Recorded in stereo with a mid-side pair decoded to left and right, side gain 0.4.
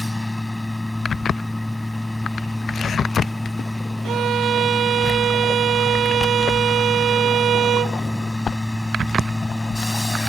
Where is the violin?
70° right.